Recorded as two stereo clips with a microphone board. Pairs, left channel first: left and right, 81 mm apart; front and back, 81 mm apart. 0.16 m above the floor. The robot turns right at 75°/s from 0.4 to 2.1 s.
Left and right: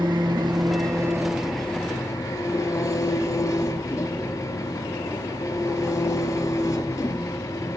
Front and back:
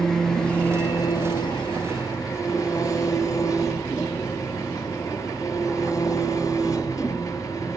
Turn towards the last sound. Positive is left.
turn(degrees=40)